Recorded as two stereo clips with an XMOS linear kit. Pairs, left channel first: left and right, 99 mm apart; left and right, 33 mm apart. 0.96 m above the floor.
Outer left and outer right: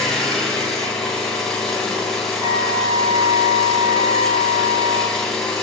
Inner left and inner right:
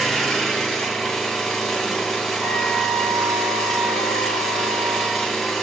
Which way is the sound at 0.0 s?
5° left (ahead or behind).